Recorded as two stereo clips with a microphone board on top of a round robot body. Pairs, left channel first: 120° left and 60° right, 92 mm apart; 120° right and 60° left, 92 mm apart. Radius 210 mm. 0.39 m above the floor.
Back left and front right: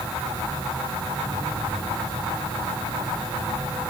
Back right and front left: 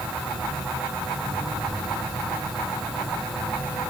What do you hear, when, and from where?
Only background noise.